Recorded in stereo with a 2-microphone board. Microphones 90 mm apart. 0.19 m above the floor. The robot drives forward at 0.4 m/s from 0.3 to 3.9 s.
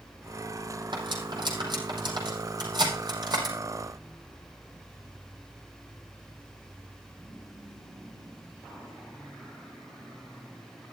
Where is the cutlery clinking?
60° right (ahead or behind), 5.5 m; by 3.5 s 50° right (ahead or behind), 6 m.